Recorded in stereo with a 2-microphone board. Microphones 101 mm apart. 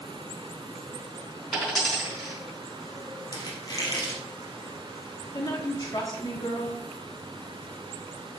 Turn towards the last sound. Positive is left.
turn(degrees=45)  # may be behind; listen again after turning